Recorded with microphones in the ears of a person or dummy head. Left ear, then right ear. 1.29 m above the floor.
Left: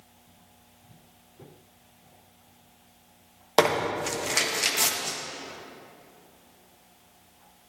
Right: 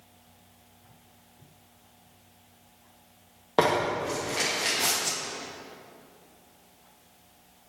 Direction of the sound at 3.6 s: 75° left (ahead or behind).